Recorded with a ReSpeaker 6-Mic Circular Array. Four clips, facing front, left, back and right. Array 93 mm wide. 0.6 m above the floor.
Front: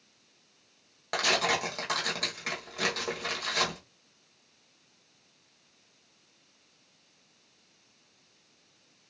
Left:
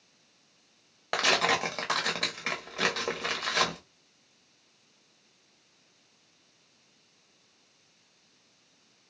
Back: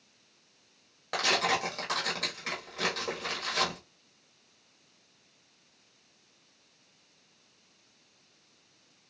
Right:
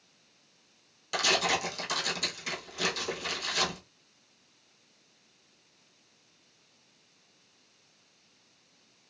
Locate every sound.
1.1 s tearing paper: 80° left, 1.0 m